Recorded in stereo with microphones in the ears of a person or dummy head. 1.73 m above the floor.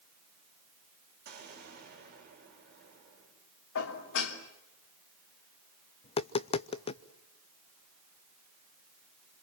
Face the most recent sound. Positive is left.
turn(degrees=30)  # may be behind; listen again after turning